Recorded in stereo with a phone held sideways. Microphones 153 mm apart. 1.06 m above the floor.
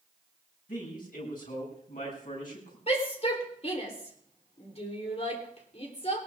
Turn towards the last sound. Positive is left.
turn(degrees=45)  # may be behind; listen again after turning